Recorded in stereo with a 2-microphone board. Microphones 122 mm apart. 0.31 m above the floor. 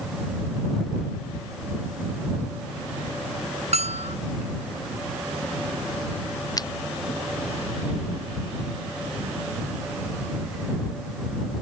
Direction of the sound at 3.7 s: 60° right (ahead or behind).